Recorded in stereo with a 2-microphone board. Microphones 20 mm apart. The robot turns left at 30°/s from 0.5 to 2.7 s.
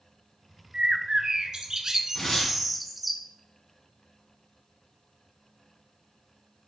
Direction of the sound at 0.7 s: 110° right.